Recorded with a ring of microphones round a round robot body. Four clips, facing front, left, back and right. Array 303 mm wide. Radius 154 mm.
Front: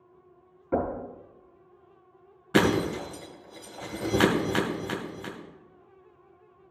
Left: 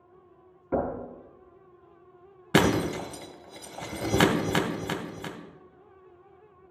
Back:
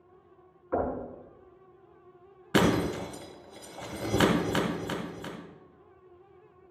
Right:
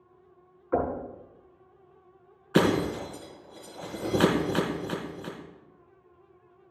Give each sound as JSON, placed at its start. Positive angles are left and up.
{"t": 0.7, "sound": "knocking", "azimuth_deg": 50, "distance_m": 4.0}
{"t": 2.5, "sound": "breaking glass", "azimuth_deg": 90, "distance_m": 2.0}